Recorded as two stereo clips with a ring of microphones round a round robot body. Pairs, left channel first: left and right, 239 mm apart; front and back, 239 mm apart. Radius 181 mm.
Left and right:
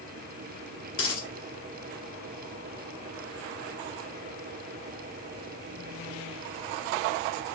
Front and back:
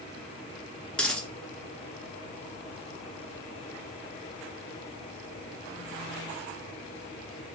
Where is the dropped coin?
85° left, 1.9 m.